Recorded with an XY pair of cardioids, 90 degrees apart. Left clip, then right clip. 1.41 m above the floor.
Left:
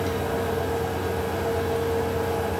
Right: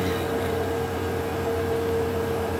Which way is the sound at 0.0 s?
35° left.